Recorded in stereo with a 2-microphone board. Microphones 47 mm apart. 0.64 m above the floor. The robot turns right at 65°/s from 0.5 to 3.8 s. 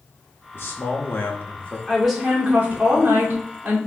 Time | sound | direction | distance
0.5 | a man speaking | 75° left | 0.9 m
1.9 | a woman speaking | 160° left | 2 m